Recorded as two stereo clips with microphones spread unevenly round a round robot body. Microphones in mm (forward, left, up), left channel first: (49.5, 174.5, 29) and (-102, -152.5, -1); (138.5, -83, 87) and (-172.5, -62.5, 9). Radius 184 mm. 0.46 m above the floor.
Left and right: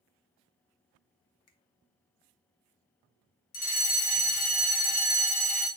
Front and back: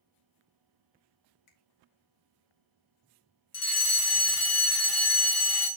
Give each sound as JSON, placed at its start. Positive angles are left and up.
{"t": 1.5, "sound": "a finger snap", "azimuth_deg": 20, "distance_m": 1.6}
{"t": 3.5, "sound": "a fire alarm", "azimuth_deg": 10, "distance_m": 1.9}